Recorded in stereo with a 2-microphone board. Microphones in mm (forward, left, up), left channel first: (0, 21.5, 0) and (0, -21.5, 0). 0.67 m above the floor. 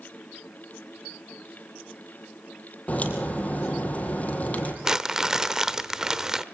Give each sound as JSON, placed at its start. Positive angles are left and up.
{"t": 2.9, "sound": "a crack", "side_deg": 35, "distance_m": 4.0}
{"t": 4.8, "sound": "crumpling", "side_deg": -15, "distance_m": 0.9}